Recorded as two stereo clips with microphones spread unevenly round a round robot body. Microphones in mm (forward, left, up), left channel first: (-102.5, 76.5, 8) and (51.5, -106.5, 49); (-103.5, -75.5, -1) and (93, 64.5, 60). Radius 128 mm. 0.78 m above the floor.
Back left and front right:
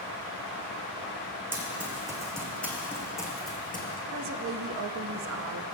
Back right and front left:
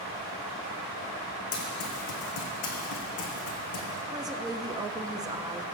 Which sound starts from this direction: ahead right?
A woman speaking, at 4.1 s.